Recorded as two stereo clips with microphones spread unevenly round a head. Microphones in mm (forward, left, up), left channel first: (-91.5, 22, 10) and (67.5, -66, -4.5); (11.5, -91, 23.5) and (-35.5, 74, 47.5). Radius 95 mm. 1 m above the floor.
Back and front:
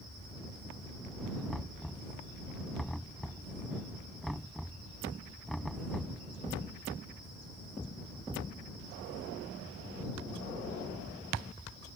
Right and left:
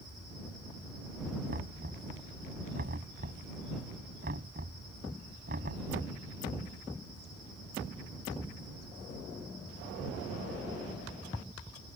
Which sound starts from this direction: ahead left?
Knocking, at 1.5 s.